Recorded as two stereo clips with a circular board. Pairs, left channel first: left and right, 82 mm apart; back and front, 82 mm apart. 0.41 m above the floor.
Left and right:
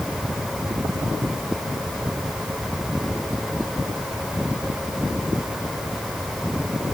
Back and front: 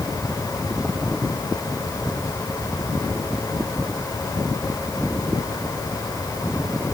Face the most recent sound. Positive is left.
No sound to turn to.